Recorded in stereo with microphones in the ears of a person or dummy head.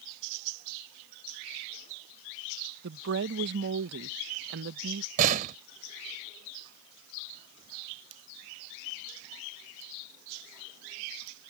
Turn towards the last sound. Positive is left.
turn(degrees=-40)  # may be behind; listen again after turning